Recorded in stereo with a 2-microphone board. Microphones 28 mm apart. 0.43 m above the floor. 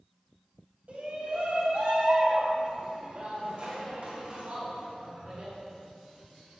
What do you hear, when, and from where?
0.9 s a shout: 55° right (ahead or behind), 2.5 m; by 5.5 s 45° right (ahead or behind), 5.5 m